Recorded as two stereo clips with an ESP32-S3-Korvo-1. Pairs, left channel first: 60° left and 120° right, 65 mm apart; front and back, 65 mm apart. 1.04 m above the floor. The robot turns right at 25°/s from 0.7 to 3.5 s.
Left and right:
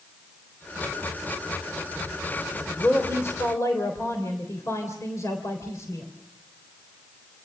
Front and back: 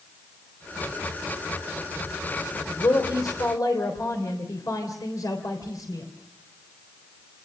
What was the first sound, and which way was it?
A woman speaking, straight ahead.